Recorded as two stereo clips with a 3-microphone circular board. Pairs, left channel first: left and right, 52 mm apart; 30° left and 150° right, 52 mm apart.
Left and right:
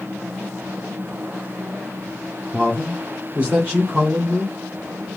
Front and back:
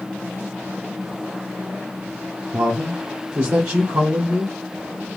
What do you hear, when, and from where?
2.5 s a man speaking: 150° right, 0.9 m